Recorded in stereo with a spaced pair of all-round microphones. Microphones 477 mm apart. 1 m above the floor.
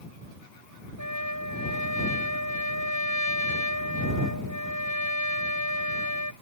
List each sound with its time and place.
1.0 s a trumpet: 35° left (ahead or behind)